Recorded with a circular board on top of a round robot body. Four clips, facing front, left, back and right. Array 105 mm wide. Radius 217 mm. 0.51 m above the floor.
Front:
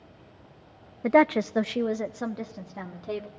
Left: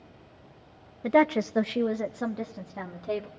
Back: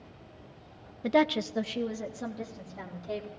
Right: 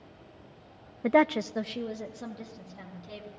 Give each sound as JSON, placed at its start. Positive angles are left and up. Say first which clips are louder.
{"t": 1.0, "sound": "a woman speaking", "louder": "left 1 dB, front 5 dB", "azimuth_deg": -30, "distance_m": 0.7}